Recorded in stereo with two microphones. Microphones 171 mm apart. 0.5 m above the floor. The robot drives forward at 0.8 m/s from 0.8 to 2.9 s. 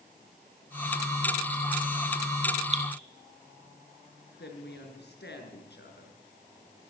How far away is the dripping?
About 2 m.